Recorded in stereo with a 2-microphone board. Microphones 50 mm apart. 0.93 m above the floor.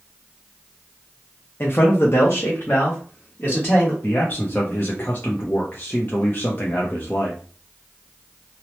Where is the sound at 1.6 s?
45° left (ahead or behind), 0.5 m; by 3.9 s 35° left (ahead or behind), 1.4 m.